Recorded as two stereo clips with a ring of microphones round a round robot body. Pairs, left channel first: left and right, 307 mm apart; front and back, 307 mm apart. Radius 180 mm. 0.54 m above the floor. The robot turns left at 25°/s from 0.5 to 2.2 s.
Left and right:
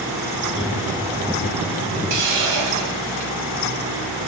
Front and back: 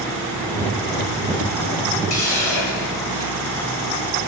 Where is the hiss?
50° right, 8 m; by 3.4 s 55° right, 8 m.